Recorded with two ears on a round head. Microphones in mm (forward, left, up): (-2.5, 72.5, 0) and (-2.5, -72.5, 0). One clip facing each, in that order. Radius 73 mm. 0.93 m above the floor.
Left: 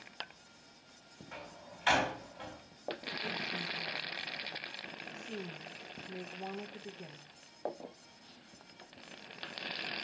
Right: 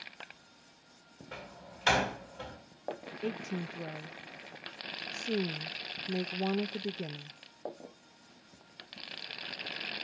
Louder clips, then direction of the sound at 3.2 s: Right 8 dB; 55° right (ahead or behind).